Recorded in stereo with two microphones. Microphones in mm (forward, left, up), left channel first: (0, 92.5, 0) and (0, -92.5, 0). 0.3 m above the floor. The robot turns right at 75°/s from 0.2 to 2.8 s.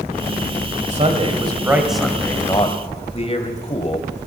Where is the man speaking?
85° right, 1.6 m; by 4.3 s 65° left, 1.6 m.